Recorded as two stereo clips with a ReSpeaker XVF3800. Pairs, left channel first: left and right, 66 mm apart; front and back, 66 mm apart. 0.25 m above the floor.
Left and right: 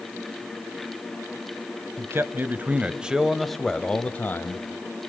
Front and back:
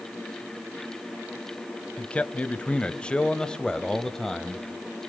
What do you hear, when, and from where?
2.0 s a man speaking: 65° right, 1.3 m; by 4.7 s 85° left, 1.1 m